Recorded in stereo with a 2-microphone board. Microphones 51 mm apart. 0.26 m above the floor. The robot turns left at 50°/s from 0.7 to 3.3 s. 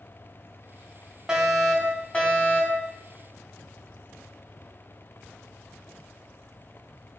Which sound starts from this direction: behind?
A fire alarm, at 1.3 s.